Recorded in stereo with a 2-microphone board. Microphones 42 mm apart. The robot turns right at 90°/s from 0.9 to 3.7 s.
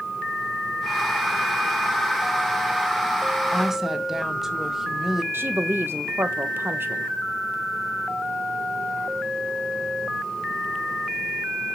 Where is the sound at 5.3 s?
70° right (ahead or behind), 1.2 m.